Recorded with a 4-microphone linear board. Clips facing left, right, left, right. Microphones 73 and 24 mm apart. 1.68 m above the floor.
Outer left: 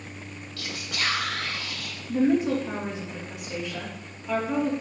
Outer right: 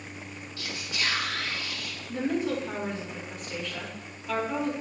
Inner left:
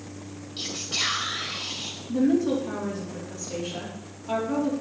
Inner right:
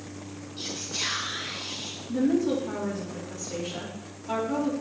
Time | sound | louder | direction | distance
0.6 | whispering | outer left 2 dB, inner left 4 dB | 80° left | 2.5 m
2.1 | a woman speaking | outer left 6 dB, inner left 2 dB | 15° left (ahead or behind) | 3 m